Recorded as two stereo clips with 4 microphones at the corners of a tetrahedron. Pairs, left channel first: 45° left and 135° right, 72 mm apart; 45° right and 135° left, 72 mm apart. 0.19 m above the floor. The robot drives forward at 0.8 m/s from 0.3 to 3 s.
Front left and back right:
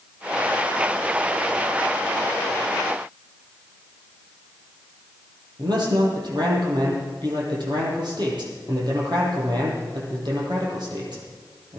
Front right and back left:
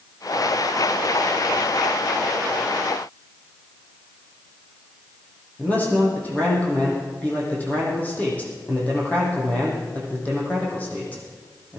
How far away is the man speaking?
About 6 m.